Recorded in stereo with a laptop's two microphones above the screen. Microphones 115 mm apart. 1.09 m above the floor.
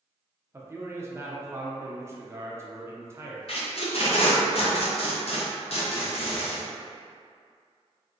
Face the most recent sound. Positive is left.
turn(degrees=60)  # may be behind; listen again after turning